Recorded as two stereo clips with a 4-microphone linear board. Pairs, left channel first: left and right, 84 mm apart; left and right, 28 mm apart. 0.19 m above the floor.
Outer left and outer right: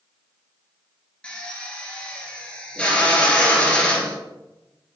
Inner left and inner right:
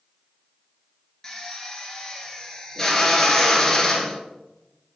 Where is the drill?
15° left (ahead or behind), 1.5 m.